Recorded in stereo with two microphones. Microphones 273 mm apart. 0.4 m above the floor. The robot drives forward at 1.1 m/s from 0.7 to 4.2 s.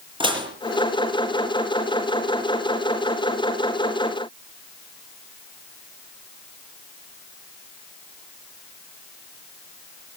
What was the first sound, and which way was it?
Dishes clattering, 15° right (ahead or behind).